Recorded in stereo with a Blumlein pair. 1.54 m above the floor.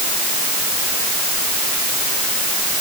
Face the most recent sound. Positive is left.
No sound to turn to.